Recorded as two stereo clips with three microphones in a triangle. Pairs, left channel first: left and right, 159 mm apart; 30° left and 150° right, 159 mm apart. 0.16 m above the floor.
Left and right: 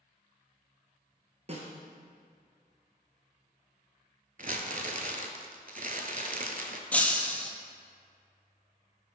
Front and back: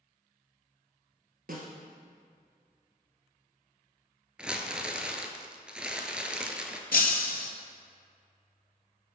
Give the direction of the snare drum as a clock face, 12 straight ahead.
4 o'clock.